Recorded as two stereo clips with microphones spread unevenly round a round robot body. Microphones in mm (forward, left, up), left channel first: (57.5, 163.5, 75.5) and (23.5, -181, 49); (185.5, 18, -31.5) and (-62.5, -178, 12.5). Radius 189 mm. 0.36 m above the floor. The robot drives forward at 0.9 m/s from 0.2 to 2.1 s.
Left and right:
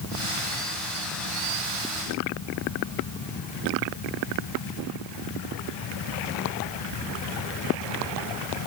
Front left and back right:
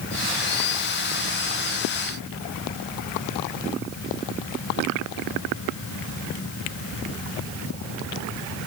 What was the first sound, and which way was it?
Only background noise.